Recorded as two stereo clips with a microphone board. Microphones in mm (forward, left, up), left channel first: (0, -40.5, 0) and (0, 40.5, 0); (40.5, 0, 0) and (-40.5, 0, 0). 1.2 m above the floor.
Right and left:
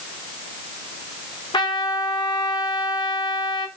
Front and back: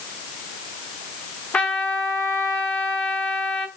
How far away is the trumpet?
About 0.8 m.